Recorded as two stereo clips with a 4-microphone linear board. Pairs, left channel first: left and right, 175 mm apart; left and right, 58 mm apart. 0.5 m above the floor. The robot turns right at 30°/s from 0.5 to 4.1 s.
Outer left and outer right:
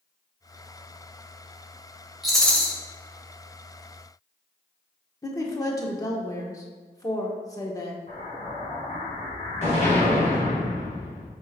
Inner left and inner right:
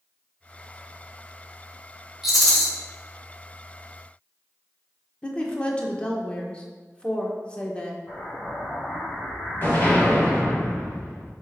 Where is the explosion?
40° left (ahead or behind), 3 m.